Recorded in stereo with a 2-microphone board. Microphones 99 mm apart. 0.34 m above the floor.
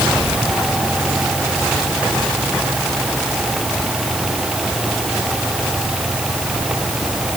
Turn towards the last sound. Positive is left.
No sound to turn to.